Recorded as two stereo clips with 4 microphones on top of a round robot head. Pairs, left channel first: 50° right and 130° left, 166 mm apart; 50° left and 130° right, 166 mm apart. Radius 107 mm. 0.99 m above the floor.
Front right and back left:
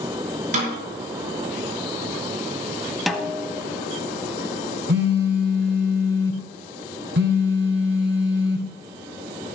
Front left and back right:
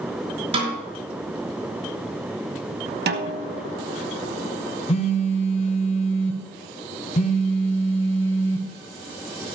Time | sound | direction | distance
0.5 | a snare drum | 175° left | 6 m
3.1 | a snare drum | 140° right | 1.3 m
4.9 | a phone buzzing | 100° left | 1.2 m